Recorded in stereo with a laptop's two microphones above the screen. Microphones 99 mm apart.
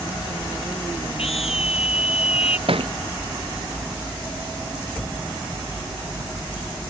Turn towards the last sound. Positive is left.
turn(degrees=-65)  # may be behind; listen again after turning